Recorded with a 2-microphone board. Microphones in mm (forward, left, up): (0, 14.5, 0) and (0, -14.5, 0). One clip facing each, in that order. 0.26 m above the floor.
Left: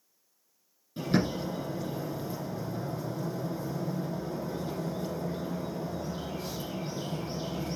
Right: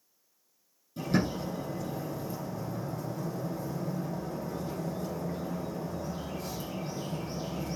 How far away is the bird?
About 4.5 m.